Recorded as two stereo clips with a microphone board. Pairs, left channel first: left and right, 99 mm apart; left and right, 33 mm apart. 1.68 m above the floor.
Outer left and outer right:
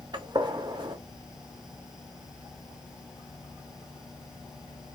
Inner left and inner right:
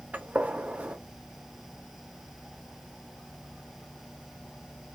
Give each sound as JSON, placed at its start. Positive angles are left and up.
{"t": 0.1, "sound": "a gunshot", "side_deg": -50, "distance_m": 0.7}